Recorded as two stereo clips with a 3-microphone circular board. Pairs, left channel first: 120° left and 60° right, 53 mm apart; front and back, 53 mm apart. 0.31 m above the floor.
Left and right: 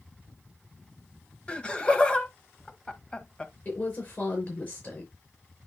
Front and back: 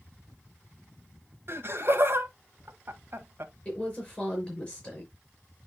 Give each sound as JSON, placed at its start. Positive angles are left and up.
{"t": 1.5, "sound": "laughter", "azimuth_deg": -175, "distance_m": 1.7}
{"t": 3.6, "sound": "a woman speaking", "azimuth_deg": 70, "distance_m": 4.5}